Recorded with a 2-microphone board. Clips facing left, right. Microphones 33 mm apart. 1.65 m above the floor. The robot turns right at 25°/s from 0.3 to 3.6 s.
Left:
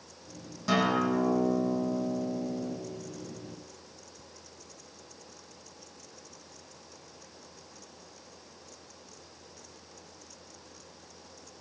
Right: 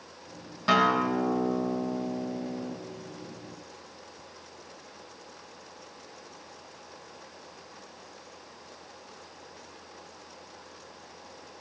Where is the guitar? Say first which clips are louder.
Right 3 dB; 130° right, 2.5 m; by 2.8 s 80° right, 2.5 m.